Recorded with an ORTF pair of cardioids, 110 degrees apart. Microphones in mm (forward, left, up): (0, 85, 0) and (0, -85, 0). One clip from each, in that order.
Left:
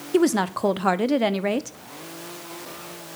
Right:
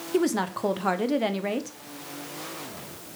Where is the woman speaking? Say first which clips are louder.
Left 5 dB; 25° left, 0.8 m.